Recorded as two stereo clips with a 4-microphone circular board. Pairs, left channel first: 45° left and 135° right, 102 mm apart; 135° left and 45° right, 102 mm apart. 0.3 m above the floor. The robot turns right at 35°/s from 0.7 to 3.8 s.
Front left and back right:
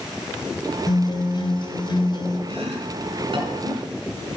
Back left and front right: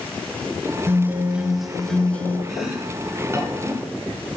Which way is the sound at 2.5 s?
140° right.